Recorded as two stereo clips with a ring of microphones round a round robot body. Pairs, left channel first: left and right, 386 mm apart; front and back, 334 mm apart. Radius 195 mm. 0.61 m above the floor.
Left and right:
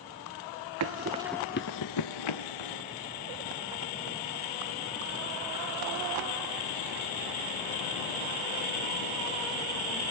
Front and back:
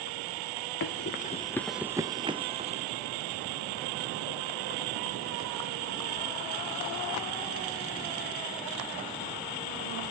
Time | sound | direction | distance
0.8 | running footsteps | 50° right | 0.8 m